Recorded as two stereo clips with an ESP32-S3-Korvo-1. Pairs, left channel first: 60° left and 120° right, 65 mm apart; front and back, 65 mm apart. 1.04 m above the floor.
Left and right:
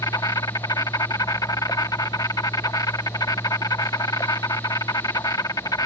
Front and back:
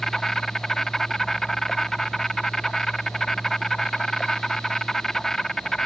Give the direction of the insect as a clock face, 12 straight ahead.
9 o'clock.